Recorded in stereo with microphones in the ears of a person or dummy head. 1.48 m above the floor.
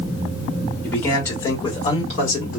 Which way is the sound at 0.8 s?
5° left (ahead or behind).